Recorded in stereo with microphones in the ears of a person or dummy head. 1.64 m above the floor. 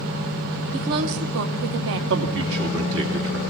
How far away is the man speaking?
About 2.5 m.